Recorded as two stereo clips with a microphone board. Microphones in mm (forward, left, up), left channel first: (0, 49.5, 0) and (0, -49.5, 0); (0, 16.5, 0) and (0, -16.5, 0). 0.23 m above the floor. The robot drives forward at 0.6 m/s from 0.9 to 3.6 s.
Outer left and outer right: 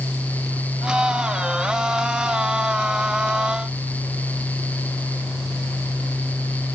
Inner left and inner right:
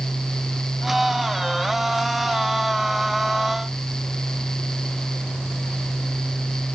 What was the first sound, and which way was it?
Only background noise.